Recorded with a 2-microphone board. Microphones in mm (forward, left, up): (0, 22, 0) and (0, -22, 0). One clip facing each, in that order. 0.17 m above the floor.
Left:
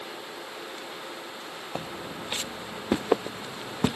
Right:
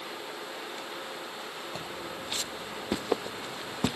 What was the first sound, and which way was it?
Footsteps, 30° left (ahead or behind).